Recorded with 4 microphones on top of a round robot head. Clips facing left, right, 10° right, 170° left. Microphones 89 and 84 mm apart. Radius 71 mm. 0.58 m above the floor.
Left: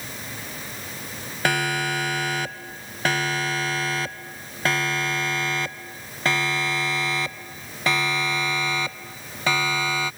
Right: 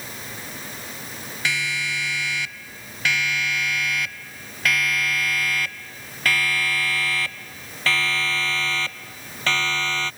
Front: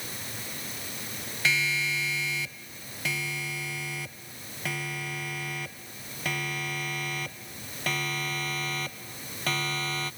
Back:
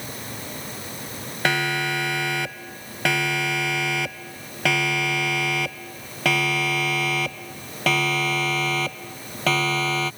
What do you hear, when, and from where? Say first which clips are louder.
1.4 s a siren: left 4 dB, back 6 dB; 135° left; by 10.1 s 170° left